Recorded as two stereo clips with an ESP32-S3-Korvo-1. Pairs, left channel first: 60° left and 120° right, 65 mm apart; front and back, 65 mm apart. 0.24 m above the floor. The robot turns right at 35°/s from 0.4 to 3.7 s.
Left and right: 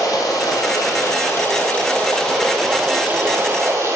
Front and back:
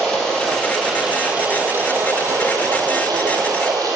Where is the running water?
80° left, 3.5 m; by 4.0 s 165° right, 3.5 m.